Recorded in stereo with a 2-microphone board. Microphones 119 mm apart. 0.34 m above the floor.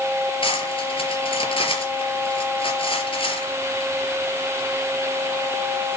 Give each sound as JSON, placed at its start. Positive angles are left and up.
{"t": 0.4, "sound": "cutlery clinking", "side_deg": 50, "distance_m": 4.0}